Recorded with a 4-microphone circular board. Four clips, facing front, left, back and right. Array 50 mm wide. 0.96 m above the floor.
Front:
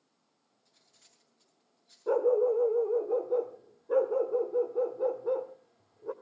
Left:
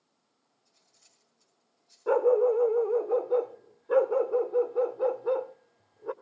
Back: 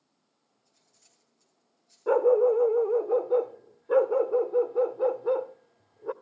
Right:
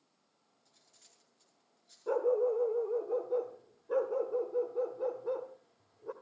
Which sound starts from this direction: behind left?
A dog barking, at 2.1 s.